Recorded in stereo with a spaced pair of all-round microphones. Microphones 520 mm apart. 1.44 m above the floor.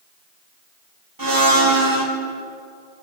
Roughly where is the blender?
Right.